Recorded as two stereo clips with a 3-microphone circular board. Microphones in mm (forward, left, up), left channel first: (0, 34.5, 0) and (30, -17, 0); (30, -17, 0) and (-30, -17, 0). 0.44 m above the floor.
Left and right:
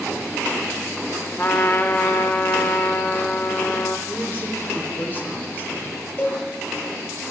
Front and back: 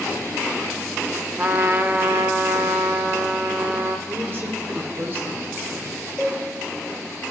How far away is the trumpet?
About 0.5 m.